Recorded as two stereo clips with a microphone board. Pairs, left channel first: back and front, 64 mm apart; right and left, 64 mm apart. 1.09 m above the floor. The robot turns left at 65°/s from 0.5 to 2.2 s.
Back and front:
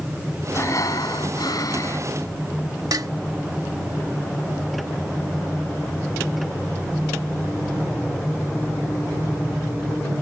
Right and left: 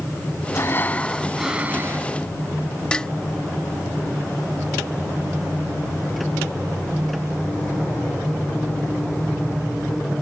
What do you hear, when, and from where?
0.5 s breathing: 130° right; by 2.1 s 130° left
2.9 s dishes clattering: 15° right